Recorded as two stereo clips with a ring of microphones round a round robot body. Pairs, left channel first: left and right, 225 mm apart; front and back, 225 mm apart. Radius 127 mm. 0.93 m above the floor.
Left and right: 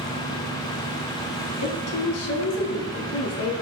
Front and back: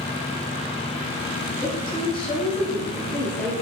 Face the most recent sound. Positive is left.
turn(degrees=85)